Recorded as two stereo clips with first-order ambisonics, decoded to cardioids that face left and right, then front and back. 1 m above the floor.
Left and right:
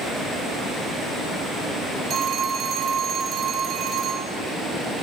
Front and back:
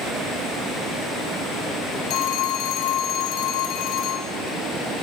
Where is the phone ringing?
30° right, 1.5 m.